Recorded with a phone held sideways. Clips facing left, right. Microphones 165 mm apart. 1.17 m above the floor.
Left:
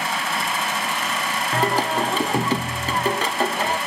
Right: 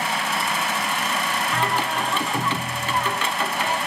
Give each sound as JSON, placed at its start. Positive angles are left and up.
{"t": 1.5, "sound": "singing", "side_deg": 40, "distance_m": 0.5}